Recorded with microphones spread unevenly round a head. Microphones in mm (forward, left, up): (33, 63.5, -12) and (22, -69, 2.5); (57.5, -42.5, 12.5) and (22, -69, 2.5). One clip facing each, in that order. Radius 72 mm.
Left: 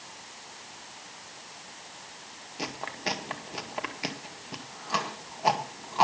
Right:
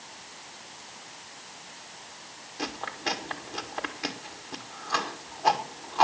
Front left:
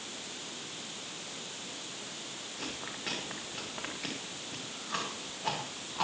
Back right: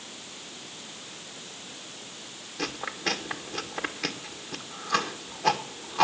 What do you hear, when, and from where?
2.6 s chewing: 165° left, 1.7 m